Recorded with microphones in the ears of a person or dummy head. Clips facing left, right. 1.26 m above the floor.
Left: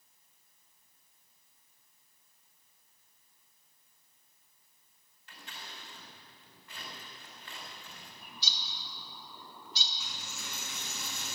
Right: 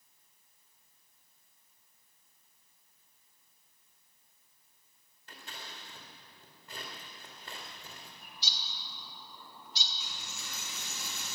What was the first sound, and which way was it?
Scissors, 40° right (ahead or behind).